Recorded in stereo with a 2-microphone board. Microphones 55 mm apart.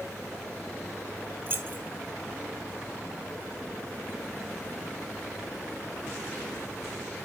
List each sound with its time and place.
1.5 s keys jangling: 40° right (ahead or behind), 2 m